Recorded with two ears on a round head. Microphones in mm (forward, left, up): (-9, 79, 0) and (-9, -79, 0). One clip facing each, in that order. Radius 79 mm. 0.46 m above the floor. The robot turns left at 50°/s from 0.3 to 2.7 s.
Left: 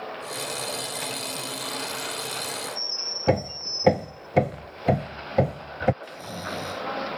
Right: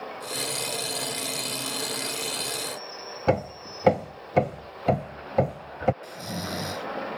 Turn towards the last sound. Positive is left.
turn(degrees=-25)  # may be behind; listen again after turning